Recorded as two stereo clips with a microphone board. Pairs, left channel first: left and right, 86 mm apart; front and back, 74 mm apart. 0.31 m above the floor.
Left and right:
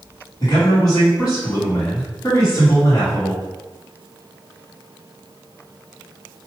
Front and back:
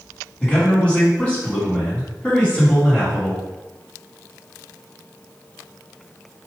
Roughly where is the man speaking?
Ahead left.